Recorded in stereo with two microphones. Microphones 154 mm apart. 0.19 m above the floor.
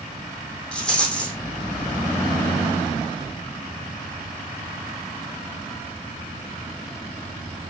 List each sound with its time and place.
0.7 s a rattle: 5° left (ahead or behind), 3 m